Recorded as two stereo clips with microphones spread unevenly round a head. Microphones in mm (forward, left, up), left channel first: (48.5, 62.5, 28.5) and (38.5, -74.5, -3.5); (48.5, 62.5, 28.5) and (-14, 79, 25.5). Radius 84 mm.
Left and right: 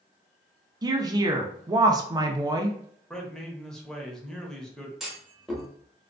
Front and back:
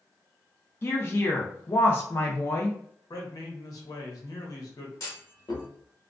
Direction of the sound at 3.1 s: 5° right.